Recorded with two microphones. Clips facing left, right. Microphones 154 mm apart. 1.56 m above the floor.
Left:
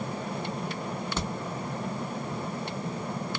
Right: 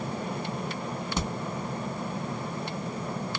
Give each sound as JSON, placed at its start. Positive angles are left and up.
{"t": 1.2, "sound": "a crack", "side_deg": -15, "distance_m": 1.1}